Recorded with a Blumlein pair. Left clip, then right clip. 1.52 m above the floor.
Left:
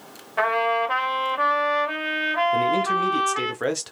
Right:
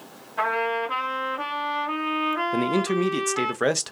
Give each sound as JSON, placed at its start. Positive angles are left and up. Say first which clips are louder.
{"t": 0.4, "sound": "a trumpet", "louder": "left 3 dB", "azimuth_deg": 25, "distance_m": 1.5}
{"t": 2.5, "sound": "a man speaking", "louder": "left 3 dB", "azimuth_deg": -15, "distance_m": 0.5}